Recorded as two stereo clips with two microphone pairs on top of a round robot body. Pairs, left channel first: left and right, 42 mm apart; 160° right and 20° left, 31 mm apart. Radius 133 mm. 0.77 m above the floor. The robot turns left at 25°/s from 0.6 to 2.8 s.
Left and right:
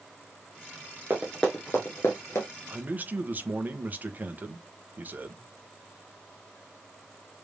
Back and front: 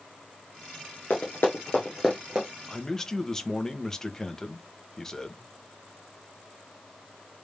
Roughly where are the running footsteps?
Behind right.